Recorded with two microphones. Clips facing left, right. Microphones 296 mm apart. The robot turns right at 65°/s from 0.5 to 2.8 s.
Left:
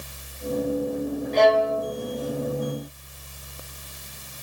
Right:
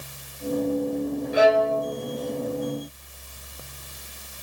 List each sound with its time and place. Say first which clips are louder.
1.3 s a violin: even; 15° right, 1.4 m; by 1.9 s 20° left, 1.4 m